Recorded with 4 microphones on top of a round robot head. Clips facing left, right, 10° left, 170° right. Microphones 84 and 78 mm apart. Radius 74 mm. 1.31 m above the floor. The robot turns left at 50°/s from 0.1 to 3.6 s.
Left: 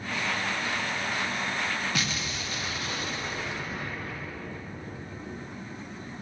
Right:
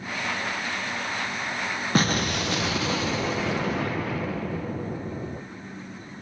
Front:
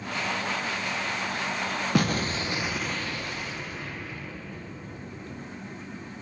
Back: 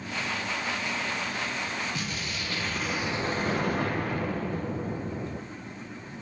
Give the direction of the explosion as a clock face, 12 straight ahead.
1 o'clock.